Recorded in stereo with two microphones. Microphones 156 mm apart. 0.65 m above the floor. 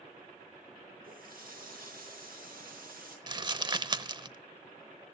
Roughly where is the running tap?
Right.